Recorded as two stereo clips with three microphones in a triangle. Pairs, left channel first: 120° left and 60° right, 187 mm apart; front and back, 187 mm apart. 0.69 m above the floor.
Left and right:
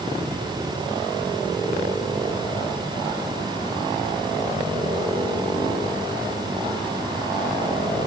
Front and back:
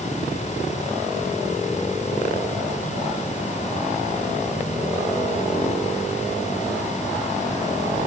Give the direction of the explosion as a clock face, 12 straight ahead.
No explosion in this recording.